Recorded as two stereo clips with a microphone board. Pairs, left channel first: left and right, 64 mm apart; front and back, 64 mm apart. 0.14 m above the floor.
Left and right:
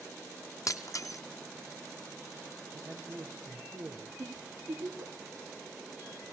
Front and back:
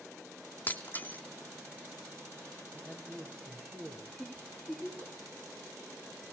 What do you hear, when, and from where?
0.7 s breaking glass: 60° left, 1.2 m
2.7 s a man speaking: 130° right, 4 m
4.2 s a giggle: 100° right, 7 m